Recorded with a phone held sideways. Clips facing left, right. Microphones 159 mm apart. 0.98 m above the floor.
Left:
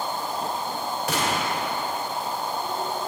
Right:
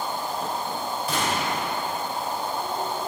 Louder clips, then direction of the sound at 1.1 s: Left 1 dB; 75° left (ahead or behind).